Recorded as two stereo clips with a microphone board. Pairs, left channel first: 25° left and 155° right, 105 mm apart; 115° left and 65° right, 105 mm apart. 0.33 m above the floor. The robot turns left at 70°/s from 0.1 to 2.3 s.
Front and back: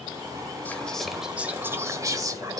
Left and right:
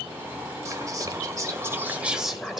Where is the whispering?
40° right, 1.3 m; by 2.6 s 155° right, 1.3 m.